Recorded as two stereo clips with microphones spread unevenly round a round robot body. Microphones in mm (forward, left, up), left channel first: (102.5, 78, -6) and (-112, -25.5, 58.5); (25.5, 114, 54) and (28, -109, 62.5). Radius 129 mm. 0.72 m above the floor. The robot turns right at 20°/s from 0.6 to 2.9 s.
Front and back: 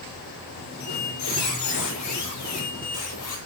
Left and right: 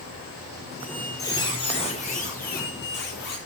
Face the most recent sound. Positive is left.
turn(degrees=50)